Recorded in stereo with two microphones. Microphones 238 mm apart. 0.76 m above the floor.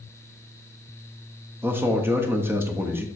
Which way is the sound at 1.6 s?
10° right (ahead or behind).